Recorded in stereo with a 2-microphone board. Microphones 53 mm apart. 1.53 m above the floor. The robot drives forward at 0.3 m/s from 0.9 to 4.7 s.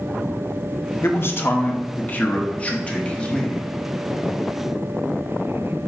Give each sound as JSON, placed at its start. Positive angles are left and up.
{"t": 1.0, "sound": "a man speaking", "side_deg": 50, "distance_m": 0.6}